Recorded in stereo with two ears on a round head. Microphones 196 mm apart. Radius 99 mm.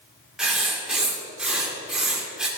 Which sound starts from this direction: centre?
Writing, at 0.4 s.